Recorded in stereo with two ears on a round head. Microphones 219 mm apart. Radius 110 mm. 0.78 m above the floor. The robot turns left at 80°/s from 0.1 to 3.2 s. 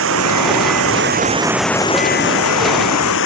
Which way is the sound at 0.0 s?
55° right.